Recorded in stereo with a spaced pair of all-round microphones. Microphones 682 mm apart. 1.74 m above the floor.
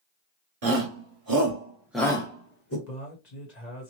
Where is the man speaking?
70° left (ahead or behind), 1.5 m.